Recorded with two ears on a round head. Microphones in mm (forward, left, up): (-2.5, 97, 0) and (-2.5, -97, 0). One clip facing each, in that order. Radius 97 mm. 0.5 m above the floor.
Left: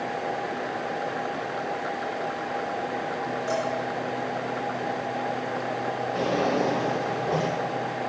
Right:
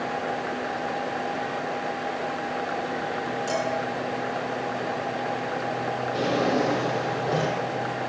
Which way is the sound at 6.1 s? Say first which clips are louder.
Right 1 dB; 30° right (ahead or behind).